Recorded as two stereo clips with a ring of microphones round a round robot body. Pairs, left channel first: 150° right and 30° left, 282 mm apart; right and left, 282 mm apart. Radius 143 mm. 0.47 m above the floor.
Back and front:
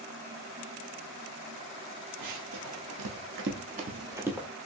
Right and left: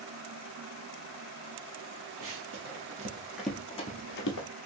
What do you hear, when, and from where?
2.2 s running footsteps: 55° left, 0.9 m; by 4.5 s 60° right, 0.7 m